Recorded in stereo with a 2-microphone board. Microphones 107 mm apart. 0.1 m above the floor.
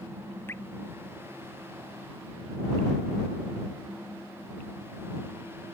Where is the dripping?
20° left (ahead or behind).